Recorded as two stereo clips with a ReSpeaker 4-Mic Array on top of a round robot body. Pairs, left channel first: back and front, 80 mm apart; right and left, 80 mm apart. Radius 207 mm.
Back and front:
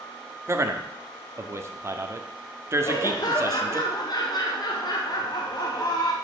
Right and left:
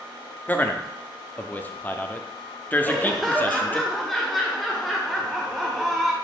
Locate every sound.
0.5 s a man speaking: 35° right, 1.4 m
2.8 s laughter: straight behind, 1.4 m